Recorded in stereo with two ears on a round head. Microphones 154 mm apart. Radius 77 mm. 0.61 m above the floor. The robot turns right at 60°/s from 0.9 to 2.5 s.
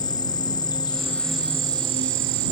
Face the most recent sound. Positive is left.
turn(degrees=-110)